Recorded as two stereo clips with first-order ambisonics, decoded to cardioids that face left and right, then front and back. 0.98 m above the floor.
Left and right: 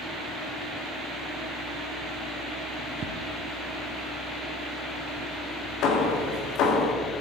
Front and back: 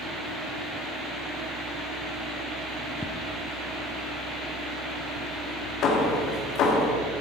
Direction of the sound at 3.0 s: 70° right.